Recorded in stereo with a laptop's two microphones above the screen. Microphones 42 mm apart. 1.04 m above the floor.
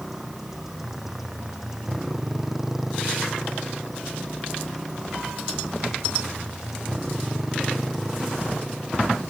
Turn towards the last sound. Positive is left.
turn(degrees=-5)  # may be behind; listen again after turning